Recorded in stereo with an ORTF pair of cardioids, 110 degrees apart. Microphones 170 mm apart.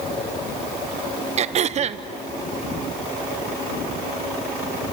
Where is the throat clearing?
40° right, 0.8 m.